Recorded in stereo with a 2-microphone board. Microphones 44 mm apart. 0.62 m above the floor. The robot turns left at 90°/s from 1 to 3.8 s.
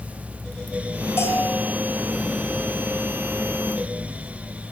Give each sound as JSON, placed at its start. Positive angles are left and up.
{"t": 1.2, "sound": "a bell", "azimuth_deg": 70, "distance_m": 6.5}